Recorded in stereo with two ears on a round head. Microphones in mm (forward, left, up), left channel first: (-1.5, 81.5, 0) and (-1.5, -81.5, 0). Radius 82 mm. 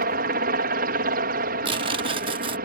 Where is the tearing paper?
30° right (ahead or behind).